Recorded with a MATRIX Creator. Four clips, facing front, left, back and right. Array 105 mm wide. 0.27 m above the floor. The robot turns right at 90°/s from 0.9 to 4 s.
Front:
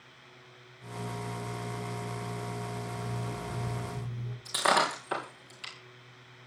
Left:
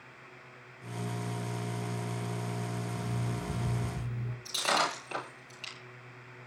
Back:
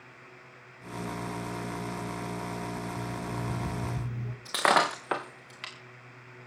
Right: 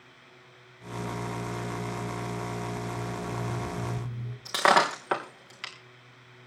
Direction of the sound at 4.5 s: 125° right.